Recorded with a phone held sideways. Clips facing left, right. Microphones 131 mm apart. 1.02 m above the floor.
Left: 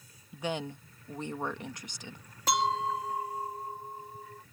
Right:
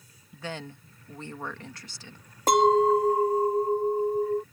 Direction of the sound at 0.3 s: 20° left (ahead or behind).